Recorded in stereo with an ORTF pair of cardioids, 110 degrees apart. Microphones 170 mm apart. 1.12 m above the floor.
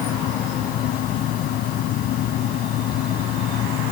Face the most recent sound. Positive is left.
turn(degrees=65)